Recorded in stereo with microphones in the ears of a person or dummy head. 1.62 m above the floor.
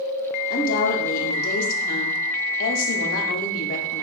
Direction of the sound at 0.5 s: 50° left (ahead or behind).